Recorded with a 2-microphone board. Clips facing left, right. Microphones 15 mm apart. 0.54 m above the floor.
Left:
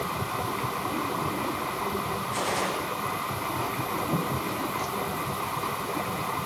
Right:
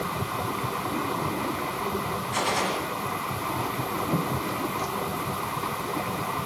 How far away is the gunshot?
About 4 m.